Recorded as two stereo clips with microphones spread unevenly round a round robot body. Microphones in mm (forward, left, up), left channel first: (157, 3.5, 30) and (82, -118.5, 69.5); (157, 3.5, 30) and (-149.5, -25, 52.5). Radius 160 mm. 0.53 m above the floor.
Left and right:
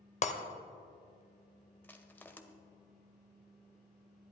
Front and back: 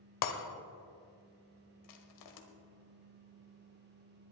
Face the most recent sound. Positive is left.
turn(degrees=-20)